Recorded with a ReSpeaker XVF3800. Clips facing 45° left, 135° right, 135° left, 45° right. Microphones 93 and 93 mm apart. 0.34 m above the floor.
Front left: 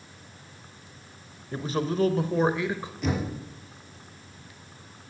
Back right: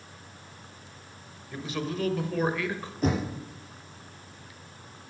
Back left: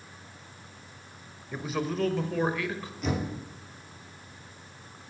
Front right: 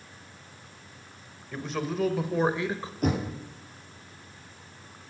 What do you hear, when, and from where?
1.5 s a man speaking: 60° left, 1.3 m; by 2.9 s 20° right, 1.2 m
3.0 s knocking: 85° right, 4.5 m